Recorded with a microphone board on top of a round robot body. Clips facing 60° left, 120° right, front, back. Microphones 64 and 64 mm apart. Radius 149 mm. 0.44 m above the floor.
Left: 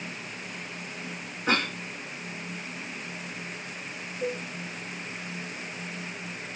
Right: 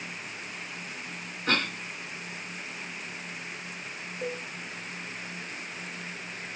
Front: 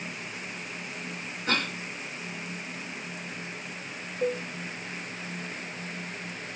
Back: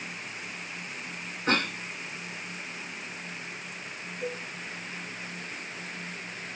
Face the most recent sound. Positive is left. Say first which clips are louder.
# left 3 dB, front 7 dB
turn(degrees=-30)